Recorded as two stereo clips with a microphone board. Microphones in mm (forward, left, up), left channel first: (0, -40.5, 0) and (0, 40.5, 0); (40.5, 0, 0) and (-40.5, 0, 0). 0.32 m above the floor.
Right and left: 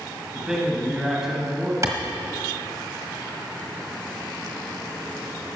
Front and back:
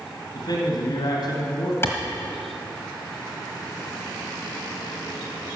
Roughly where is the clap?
Ahead left.